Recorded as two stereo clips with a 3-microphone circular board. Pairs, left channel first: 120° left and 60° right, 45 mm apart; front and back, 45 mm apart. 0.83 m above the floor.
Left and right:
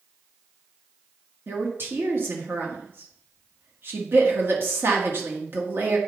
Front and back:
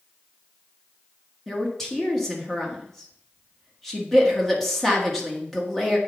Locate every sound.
1.5 s a woman speaking: 85° right, 1.9 m